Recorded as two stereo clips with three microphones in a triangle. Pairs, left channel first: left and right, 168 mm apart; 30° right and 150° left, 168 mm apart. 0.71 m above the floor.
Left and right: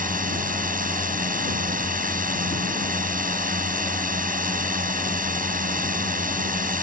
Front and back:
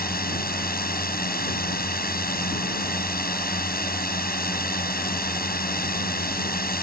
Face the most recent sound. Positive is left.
turn(degrees=-55)